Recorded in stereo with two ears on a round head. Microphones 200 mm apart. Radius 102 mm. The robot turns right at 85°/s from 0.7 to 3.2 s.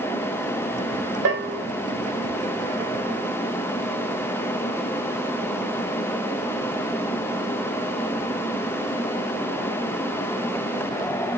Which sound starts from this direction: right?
A bell, at 1.2 s.